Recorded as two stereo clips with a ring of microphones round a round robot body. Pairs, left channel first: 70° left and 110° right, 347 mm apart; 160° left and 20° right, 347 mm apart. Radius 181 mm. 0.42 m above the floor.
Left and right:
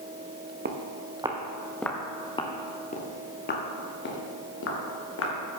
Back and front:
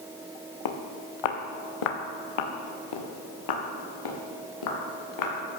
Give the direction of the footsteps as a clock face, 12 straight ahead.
6 o'clock.